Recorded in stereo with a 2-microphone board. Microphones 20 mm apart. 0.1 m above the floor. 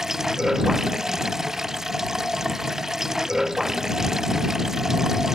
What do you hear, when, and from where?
0.0 s running water: 20° right (ahead or behind)